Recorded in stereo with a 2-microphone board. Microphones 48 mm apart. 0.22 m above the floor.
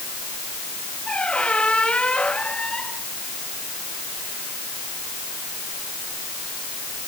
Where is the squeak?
20° left (ahead or behind).